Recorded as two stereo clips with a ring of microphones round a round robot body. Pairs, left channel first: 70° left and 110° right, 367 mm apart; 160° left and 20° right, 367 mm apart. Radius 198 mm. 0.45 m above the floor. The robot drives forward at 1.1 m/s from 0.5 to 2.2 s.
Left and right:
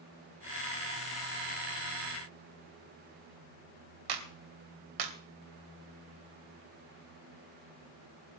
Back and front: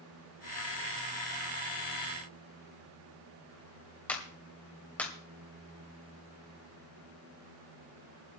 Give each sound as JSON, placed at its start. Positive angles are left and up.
{"t": 4.1, "sound": "a clap", "azimuth_deg": -115, "distance_m": 2.5}